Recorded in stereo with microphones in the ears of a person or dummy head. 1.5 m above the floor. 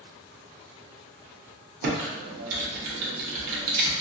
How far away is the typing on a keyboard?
About 1.0 m.